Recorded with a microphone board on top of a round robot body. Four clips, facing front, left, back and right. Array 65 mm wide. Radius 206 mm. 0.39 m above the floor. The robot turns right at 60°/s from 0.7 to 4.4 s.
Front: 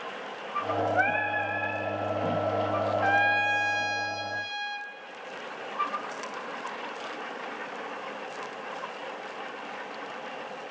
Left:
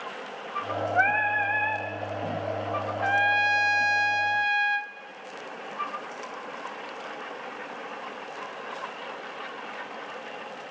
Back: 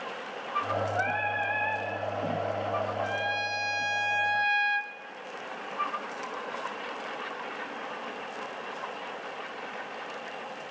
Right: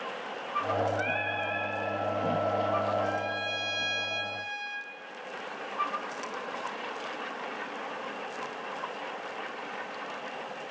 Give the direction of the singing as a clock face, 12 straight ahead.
10 o'clock.